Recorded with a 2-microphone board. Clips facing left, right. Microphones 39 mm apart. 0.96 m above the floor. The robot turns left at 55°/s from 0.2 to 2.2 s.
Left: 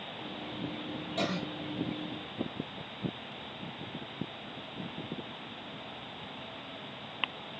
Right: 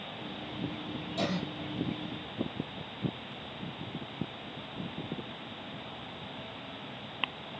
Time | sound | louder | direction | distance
1.2 | a cough | even | 50° left (ahead or behind) | 2.5 m